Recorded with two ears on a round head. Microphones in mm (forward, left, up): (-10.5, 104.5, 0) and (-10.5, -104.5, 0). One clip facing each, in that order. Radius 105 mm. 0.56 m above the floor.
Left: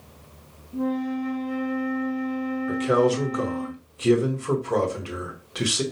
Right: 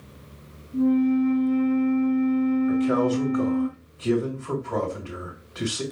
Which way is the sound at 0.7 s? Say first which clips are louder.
Right 6 dB; 85° left.